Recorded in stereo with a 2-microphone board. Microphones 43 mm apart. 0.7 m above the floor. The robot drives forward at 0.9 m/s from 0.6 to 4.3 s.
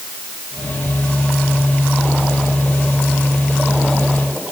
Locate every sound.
Only background noise.